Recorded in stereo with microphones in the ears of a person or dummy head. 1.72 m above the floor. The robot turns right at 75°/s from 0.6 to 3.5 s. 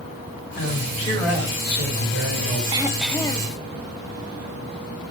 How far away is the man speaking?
About 5.5 m.